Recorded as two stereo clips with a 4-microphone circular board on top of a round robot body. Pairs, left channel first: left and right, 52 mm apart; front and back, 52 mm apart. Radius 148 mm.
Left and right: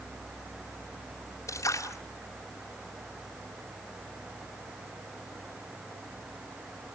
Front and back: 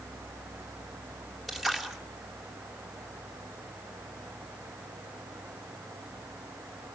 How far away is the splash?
About 2.5 m.